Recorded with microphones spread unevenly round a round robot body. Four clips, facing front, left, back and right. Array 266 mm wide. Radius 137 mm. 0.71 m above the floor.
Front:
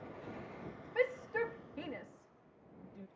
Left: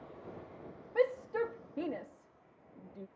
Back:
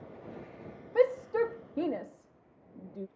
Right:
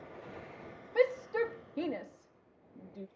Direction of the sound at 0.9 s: 165° right.